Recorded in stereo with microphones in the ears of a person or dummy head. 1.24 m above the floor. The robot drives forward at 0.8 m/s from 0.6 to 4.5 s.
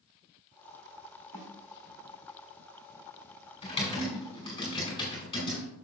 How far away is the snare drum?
About 3 m.